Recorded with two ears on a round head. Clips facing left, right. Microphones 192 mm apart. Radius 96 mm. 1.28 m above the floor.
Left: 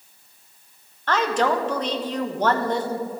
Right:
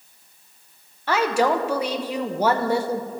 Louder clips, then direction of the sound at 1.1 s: Right 1 dB; 10° right (ahead or behind).